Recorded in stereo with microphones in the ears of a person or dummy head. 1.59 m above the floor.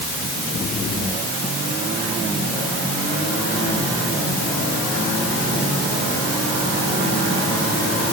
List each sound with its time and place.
Only background noise.